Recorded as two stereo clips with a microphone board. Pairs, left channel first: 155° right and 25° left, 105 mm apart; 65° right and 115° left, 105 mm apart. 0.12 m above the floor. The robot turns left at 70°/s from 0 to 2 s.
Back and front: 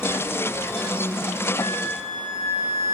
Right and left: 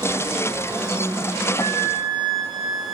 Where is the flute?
135° right, 6 m; by 3.0 s 165° right, 6 m.